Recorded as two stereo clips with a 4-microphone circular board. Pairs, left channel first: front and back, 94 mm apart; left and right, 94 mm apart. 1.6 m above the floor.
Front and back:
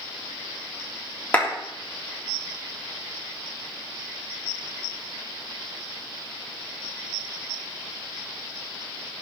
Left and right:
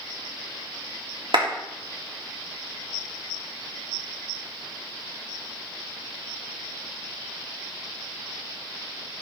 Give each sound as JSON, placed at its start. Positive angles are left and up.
{"t": 1.3, "sound": "a clap", "azimuth_deg": -70, "distance_m": 3.0}